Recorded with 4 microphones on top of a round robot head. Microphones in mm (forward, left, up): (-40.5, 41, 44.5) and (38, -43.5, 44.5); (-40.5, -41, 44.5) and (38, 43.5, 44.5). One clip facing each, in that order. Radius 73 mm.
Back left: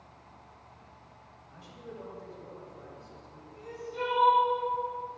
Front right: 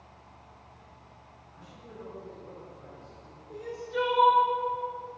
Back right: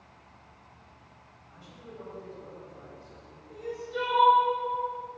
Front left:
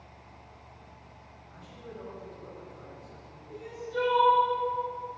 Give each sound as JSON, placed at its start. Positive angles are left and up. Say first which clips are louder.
{"t": 1.5, "sound": "a man speaking", "louder": "back left 3 dB, front left 2 dB", "azimuth_deg": 145, "distance_m": 3.5}
{"t": 3.5, "sound": "crying", "louder": "front right 7 dB, even", "azimuth_deg": -45, "distance_m": 2.5}